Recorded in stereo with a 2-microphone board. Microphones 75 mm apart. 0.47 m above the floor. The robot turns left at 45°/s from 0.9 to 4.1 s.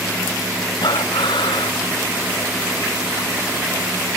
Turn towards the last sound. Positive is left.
turn(degrees=-40)